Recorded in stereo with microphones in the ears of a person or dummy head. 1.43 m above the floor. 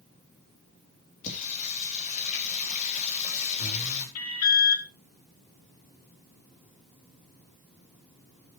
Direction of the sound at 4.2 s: 80° left.